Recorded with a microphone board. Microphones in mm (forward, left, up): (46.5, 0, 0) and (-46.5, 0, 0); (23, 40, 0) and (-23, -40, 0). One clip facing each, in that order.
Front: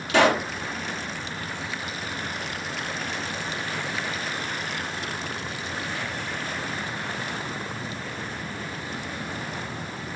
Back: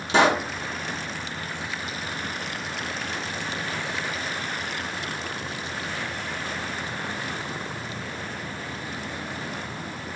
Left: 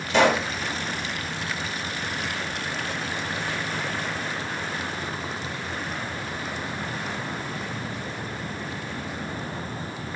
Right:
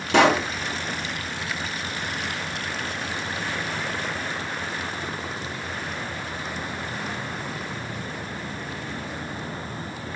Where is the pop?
115° right, 1.6 m.